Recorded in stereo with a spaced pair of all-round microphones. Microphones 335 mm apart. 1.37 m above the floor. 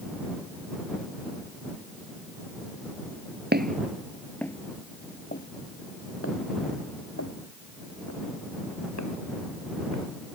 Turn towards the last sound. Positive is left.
turn(degrees=55)  # may be behind; listen again after turning